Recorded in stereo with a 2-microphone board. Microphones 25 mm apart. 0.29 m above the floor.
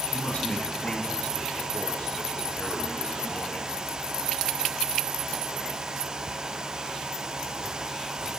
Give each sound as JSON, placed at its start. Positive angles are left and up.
{"t": 0.1, "sound": "a man speaking", "side_deg": 55, "distance_m": 3.5}